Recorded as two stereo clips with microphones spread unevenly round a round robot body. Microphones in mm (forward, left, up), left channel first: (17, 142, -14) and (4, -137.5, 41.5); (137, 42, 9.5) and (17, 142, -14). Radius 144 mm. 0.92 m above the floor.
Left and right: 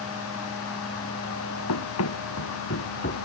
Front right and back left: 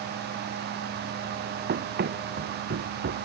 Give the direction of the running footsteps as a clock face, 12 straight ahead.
8 o'clock.